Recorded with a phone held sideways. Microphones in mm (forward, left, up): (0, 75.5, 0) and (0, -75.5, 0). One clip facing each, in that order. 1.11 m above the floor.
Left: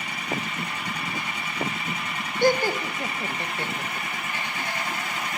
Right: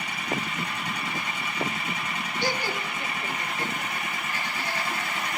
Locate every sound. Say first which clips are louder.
2.4 s laughter: left 10 dB; 50° left (ahead or behind), 0.9 m; by 5.4 s 10° left (ahead or behind), 2 m